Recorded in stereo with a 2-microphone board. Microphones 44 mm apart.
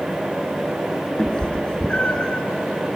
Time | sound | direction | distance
1.2 | a cat meowing | 20° left (ahead or behind) | 0.7 m